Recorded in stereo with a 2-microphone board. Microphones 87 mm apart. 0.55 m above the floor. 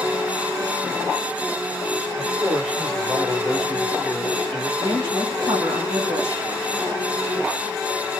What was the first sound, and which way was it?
A man speaking, 5° left (ahead or behind).